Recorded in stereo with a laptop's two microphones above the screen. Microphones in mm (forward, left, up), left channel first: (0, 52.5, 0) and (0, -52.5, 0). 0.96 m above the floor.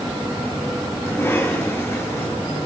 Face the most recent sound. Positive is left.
turn(degrees=25)  # may be behind; listen again after turning